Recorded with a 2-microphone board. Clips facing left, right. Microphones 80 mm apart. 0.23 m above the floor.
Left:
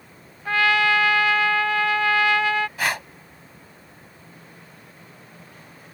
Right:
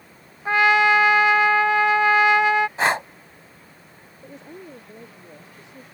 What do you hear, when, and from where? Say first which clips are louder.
0.5 s a trumpet: right 3 dB; 20° right (ahead or behind)
2.8 s breathing: right 5 dB; 30° right (ahead or behind)
4.2 s a woman speaking: right 12 dB; 85° right